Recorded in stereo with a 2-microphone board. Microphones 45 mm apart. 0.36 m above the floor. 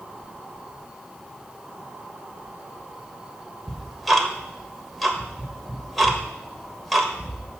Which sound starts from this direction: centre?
Ticking, at 3.7 s.